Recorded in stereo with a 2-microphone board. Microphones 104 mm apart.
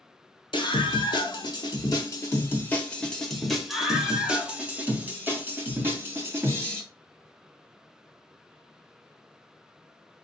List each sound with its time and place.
0.5 s a scream: 55° left (ahead or behind), 1.4 m; by 6.8 s 30° right (ahead or behind), 2.5 m